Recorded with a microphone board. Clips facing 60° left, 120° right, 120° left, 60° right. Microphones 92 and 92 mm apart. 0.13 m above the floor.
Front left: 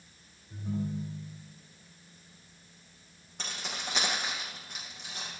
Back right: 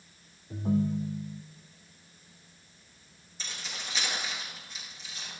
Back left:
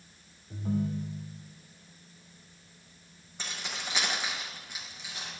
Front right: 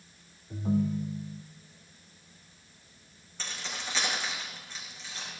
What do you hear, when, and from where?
0.5 s a ringtone: 135° right, 2.5 m
3.4 s keys jangling: 45° left, 6 m